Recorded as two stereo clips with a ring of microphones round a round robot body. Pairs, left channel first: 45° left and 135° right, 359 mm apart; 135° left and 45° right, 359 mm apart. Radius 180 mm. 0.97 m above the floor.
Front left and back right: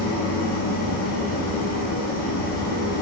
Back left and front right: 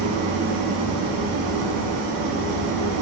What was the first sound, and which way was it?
An engine running, 20° right.